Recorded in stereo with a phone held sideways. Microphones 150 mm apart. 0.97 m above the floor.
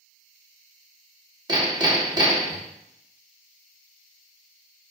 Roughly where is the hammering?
Right.